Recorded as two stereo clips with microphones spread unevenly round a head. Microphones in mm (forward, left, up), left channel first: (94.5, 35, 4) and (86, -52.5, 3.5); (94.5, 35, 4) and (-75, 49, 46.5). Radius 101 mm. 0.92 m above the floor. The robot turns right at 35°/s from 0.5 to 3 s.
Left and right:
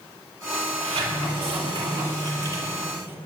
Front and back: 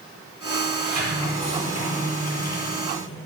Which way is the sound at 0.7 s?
110° right.